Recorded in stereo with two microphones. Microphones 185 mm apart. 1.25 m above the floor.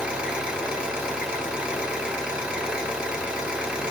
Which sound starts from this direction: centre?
An engine running, at 0.0 s.